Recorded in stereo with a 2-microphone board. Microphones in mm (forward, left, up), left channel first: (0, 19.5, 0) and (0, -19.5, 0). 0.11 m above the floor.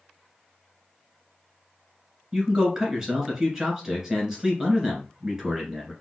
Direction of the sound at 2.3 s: 15° right (ahead or behind).